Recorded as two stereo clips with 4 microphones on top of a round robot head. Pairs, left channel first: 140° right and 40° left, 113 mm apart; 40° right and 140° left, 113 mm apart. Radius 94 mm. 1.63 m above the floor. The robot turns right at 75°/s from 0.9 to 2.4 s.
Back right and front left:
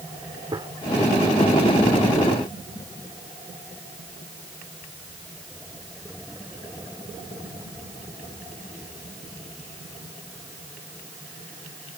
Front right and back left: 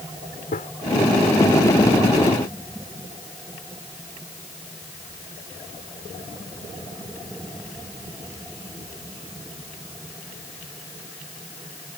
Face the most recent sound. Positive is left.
turn(degrees=95)